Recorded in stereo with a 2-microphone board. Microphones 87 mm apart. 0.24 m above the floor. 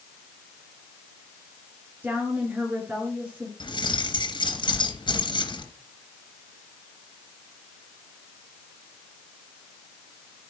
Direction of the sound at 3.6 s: 65° left (ahead or behind).